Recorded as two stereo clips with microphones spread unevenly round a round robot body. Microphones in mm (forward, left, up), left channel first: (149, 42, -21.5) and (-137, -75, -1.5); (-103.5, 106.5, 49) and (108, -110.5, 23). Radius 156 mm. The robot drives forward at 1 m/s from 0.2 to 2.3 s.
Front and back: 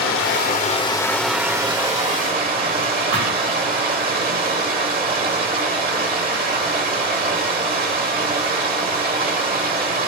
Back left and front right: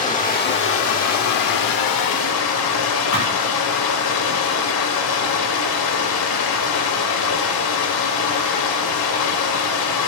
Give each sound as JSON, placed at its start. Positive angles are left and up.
{"t": 0.0, "sound": "running water", "azimuth_deg": 70, "distance_m": 1.7}
{"t": 3.1, "sound": "a thud", "azimuth_deg": 165, "distance_m": 7.5}